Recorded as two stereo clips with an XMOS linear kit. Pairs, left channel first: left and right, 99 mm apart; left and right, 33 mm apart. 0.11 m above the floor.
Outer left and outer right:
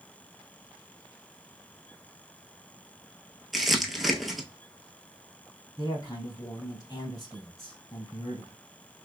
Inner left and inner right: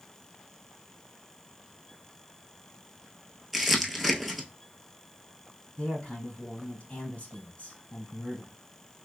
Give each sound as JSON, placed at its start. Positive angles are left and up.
{"t": 3.5, "sound": "crumpling", "side_deg": 0, "distance_m": 0.8}
{"t": 5.8, "sound": "a man speaking", "side_deg": 35, "distance_m": 2.0}